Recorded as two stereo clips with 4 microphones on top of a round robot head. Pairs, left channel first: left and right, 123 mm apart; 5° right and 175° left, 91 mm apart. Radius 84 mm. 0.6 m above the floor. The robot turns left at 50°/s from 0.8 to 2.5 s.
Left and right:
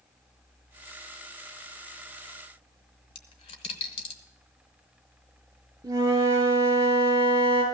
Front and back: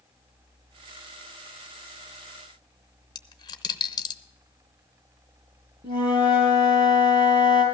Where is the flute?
150° right, 6 m.